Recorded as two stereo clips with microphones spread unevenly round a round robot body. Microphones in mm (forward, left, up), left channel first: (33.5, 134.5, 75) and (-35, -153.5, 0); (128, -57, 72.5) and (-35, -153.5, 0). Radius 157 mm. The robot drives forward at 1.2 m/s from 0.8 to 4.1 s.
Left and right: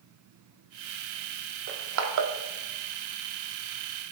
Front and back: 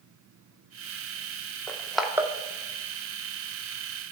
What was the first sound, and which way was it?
Crushing, 50° right.